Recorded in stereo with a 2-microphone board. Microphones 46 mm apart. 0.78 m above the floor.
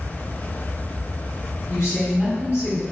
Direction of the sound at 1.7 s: 75° left (ahead or behind).